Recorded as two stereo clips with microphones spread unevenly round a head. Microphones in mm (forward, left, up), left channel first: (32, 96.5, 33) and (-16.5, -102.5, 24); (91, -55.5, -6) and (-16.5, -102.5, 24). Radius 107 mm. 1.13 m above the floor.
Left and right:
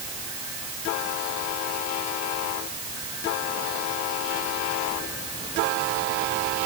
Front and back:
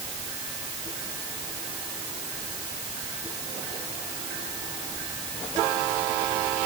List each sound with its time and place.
Only background noise.